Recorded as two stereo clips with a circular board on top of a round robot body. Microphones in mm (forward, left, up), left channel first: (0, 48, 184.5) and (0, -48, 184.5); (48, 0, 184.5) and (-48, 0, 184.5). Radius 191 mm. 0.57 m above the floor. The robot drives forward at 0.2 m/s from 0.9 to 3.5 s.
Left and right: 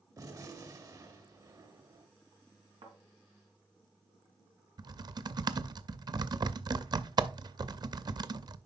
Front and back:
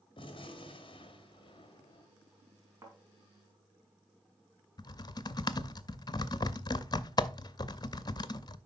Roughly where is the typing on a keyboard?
Ahead right.